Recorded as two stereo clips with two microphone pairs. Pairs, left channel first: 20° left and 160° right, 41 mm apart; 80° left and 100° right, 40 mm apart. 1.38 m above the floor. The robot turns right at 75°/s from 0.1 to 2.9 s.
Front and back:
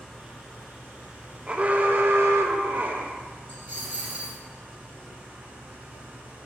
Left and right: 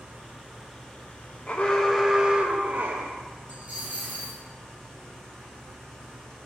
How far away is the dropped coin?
About 2.5 m.